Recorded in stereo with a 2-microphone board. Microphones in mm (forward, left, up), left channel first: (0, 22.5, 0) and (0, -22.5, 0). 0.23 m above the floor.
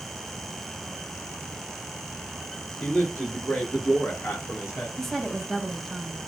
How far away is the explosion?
I don't hear an explosion.